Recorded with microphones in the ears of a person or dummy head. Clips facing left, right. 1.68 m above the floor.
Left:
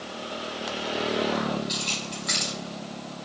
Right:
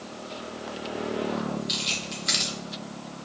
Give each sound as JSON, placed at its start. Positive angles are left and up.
{"t": 1.7, "sound": "keys jangling", "side_deg": -35, "distance_m": 2.0}